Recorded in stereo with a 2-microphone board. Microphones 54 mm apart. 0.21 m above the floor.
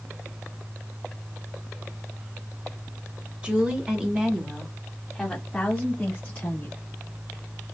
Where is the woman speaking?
20° right (ahead or behind), 1.4 m; by 6.8 s 25° left (ahead or behind), 1.8 m.